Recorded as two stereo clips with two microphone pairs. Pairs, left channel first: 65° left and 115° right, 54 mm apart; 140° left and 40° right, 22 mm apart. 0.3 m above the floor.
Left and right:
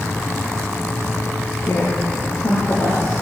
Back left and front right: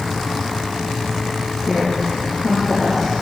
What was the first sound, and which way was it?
A woman speaking, 35° left.